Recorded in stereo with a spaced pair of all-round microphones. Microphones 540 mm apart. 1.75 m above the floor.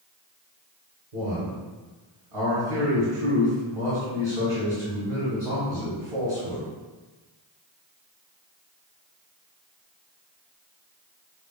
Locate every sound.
1.1 s a man speaking: 85° right, 1.2 m